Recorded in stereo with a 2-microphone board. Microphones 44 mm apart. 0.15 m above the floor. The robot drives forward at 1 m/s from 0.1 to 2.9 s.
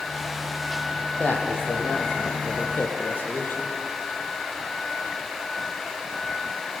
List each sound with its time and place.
1.2 s a man speaking: 45° left (ahead or behind), 4.5 m; by 3.7 s 65° left (ahead or behind), 3.5 m